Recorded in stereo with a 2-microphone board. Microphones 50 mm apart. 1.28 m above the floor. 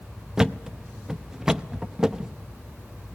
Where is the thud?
10° right (ahead or behind), 0.6 m.